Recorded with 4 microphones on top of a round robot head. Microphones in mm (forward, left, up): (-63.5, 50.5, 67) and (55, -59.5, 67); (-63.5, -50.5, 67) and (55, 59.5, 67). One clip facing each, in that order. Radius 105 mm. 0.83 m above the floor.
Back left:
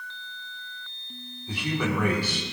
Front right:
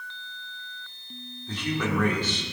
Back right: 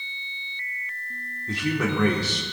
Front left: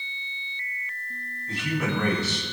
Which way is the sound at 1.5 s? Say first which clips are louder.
Even, back right 3 dB; 145° right.